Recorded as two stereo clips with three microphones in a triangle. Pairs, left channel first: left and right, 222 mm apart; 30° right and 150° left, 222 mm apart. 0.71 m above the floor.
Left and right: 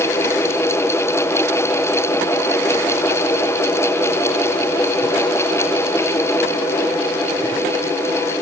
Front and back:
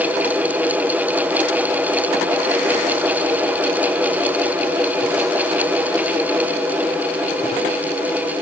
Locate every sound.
Only background noise.